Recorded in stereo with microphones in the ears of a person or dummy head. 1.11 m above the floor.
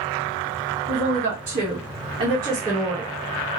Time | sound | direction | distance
0.9 | a woman speaking | 60° right (ahead or behind) | 1.3 m